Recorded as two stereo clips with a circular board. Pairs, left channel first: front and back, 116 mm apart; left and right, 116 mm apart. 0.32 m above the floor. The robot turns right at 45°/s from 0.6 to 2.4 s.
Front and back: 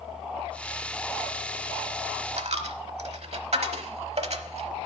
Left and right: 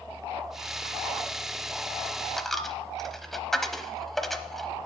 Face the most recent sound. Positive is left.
turn(degrees=180)